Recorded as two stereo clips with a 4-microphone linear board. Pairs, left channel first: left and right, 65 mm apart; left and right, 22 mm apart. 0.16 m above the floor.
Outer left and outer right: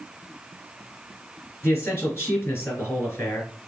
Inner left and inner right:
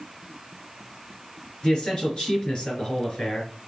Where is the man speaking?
35° left (ahead or behind), 3 m.